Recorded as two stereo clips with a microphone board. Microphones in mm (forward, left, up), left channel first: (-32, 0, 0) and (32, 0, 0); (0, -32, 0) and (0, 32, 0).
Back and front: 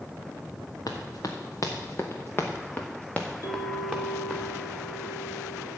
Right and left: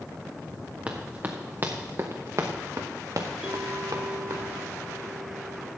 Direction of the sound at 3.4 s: 165° left.